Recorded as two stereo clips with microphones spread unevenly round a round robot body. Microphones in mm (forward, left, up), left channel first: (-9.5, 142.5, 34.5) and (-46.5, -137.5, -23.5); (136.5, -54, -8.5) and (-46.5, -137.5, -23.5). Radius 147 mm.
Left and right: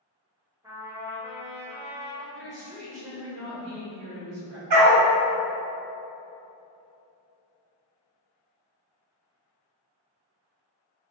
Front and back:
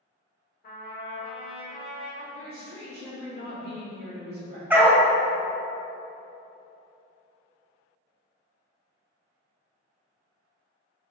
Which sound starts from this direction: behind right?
A woman speaking, at 2.3 s.